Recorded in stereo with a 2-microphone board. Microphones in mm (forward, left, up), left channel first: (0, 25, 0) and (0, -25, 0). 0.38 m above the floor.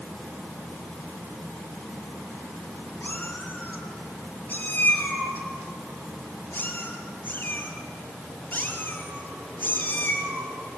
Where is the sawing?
No sawing in this recording.